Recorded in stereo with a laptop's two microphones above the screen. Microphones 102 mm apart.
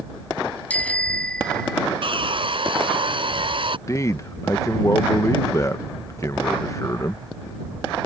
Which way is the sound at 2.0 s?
60° right (ahead or behind).